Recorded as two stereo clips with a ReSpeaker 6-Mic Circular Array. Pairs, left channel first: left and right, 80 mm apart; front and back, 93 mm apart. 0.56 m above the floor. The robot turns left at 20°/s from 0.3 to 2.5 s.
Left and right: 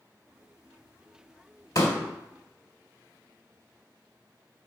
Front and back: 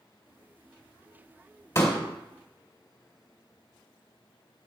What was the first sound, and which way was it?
A pop, 55° left.